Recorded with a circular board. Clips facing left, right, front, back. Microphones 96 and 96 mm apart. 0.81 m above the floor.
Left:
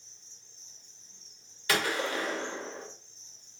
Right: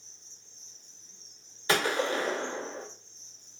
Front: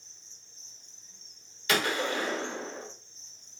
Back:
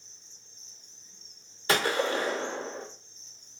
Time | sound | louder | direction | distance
0.0 | an insect | right 2 dB, back 1 dB | 20° left | 1.7 m
1.7 | a gunshot | right 3 dB, back 2 dB | 140° right | 0.6 m